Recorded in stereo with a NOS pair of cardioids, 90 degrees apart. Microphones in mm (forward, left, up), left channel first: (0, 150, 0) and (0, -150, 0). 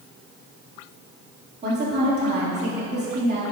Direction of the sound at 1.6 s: 35° right.